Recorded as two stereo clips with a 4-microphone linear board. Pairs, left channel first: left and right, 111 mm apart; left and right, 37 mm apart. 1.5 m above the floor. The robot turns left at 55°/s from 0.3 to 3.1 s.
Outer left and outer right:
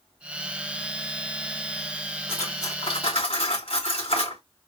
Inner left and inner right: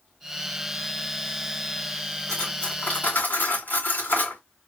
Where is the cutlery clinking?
160° left, 3 m; by 4.4 s 115° left, 3 m.